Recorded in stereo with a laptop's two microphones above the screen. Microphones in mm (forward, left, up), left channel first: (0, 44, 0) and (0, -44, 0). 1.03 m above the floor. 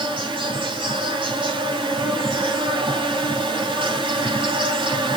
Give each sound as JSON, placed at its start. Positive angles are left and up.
{"t": 0.0, "sound": "an insect", "side_deg": -75, "distance_m": 3.5}